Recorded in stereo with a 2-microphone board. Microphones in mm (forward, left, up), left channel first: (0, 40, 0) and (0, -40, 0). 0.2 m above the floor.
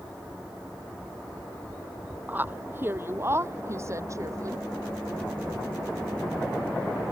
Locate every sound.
2.3 s a woman speaking: 25° right (ahead or behind); by 4.6 s 45° right (ahead or behind)